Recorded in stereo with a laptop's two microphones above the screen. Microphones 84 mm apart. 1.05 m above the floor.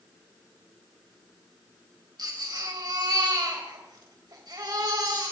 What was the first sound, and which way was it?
A baby crying, 55° right (ahead or behind).